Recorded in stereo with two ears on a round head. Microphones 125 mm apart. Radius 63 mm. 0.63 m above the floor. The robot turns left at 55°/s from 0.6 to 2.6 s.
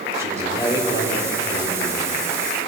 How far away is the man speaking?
About 2 m.